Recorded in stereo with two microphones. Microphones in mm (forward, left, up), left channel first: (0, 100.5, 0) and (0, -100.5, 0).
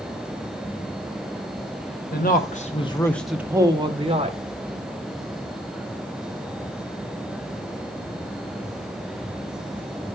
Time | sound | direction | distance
2.1 | a man speaking | 50° left (ahead or behind) | 0.9 m